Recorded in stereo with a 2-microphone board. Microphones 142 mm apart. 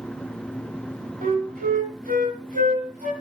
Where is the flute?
85° right, 1.9 m.